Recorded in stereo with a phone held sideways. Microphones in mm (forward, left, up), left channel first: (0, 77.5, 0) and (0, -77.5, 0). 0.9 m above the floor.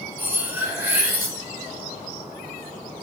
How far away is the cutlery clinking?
About 0.7 m.